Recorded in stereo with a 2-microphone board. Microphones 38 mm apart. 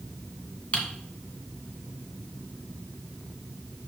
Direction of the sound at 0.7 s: 35° left (ahead or behind).